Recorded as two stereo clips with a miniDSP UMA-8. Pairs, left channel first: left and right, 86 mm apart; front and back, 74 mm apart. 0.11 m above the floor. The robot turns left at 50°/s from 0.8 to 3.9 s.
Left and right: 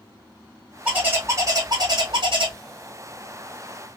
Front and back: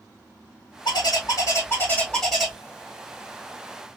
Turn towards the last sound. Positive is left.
turn(degrees=-165)